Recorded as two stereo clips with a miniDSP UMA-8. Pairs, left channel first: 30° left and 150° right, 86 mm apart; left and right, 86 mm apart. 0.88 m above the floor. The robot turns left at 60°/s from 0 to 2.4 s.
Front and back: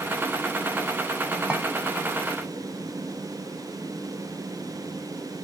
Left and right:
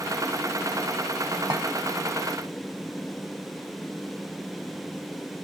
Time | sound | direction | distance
1.5 | a clink | 75° right | 0.7 m